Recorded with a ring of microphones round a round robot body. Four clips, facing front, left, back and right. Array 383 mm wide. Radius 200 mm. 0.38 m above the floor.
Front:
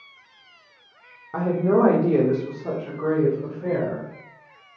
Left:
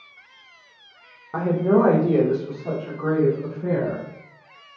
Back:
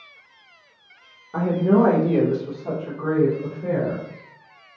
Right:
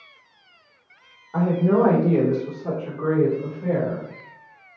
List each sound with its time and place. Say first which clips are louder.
1.3 s a woman speaking: even, back 2 dB; 65° left, 1.2 m; by 4.0 s 60° right, 1.8 m